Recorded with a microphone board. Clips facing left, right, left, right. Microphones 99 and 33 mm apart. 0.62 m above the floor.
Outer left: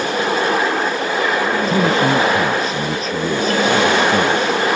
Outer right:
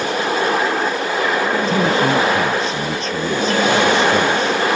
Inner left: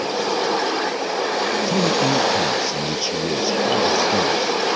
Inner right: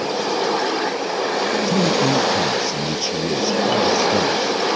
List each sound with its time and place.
1.7 s a man speaking: 5° left (ahead or behind)